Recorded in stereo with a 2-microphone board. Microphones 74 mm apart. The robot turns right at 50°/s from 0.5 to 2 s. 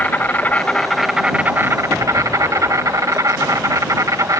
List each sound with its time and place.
0.0 s an insect: 155° left; by 4.4 s 130° right